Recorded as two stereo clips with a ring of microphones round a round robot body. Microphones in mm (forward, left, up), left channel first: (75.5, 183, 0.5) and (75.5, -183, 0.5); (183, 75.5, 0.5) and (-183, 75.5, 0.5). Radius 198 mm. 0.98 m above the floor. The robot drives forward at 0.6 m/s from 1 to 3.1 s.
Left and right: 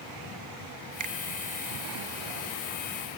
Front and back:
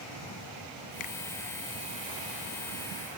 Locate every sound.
1.0 s a finger snap: 45° right; by 1.1 s 50° right